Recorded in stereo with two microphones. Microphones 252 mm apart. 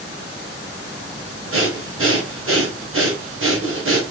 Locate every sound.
1.5 s breathing: 55° right (ahead or behind), 0.9 m